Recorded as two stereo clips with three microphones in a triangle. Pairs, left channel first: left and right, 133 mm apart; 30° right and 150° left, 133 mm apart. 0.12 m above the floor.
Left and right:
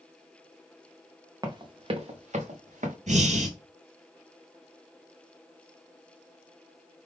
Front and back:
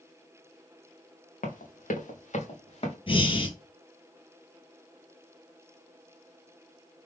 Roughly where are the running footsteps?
Ahead right.